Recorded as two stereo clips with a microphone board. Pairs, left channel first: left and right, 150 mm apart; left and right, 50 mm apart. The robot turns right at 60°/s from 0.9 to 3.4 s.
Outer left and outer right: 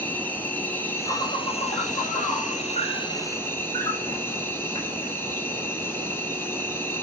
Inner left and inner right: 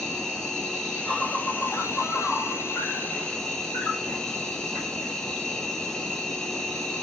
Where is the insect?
15° left, 1.0 m; by 7.0 s 165° left, 1.0 m.